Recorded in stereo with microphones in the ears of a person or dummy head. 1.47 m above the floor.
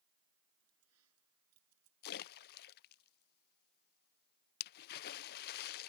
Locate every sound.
0.6 s keys jangling: 85° right
2.0 s a splash: 50° left (ahead or behind)